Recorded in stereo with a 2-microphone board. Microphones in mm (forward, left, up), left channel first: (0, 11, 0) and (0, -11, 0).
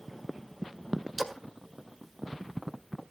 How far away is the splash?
About 1.9 m.